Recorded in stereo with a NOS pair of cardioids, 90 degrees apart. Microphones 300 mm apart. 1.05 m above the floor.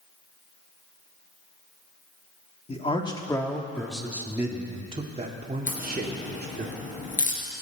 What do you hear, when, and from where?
2.7 s a man speaking: 20° left, 1.8 m; by 6.7 s 35° right, 2.5 m
5.7 s a crack: 25° left, 3.5 m